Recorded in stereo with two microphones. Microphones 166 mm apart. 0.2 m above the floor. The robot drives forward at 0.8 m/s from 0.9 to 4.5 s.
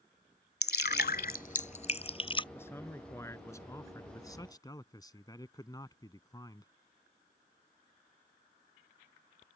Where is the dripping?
75° left (ahead or behind); by 2.4 s 30° left (ahead or behind).